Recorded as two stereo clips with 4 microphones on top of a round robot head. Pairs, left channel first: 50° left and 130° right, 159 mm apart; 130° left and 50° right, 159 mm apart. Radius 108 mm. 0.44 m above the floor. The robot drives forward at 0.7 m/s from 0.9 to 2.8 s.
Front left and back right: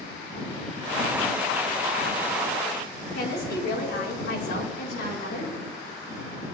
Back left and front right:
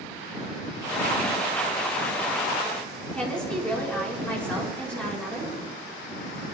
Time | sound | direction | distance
3.1 | a woman speaking | 45° left | 6.5 m